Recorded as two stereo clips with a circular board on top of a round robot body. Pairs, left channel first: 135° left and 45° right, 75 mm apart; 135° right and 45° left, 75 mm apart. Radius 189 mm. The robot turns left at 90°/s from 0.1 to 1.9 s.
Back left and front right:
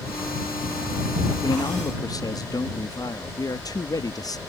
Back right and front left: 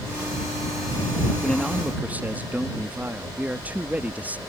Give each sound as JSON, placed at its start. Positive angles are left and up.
{"t": 1.4, "sound": "a man speaking", "azimuth_deg": 155}